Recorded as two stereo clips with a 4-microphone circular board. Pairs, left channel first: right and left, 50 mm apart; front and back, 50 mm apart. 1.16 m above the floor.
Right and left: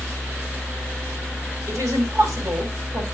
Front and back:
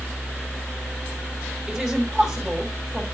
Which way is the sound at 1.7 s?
90° left.